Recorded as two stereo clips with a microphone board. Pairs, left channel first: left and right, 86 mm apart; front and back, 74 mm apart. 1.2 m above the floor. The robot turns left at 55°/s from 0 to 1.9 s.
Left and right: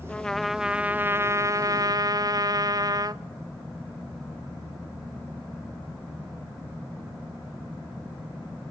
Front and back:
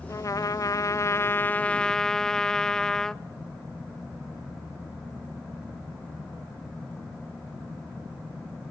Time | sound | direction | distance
0.1 | a trumpet | 20° left | 0.6 m